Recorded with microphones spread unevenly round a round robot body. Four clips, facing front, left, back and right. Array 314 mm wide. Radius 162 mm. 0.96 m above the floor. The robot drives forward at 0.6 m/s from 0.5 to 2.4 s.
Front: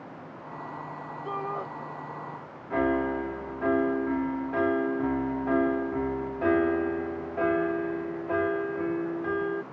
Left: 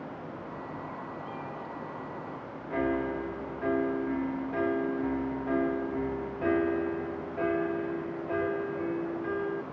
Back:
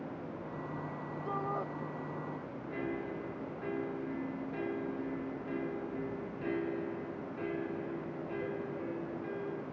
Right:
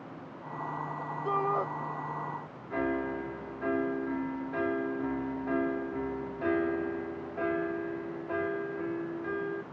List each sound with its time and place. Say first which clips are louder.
1.2 s a shout: right 9 dB, front 4 dB; 70° right; by 1.7 s 75° right
2.7 s a piano: left 2 dB, front 13 dB; 10° left